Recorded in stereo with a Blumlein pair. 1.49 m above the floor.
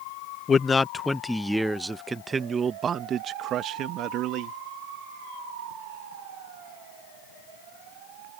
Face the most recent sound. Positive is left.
turn(degrees=-40)